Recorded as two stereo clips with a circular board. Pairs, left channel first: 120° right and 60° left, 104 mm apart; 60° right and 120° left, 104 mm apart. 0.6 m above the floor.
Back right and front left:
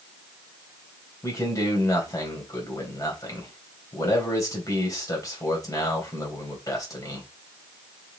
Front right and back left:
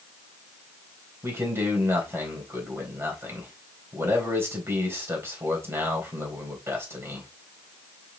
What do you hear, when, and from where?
1.2 s a man speaking: 175° right, 3 m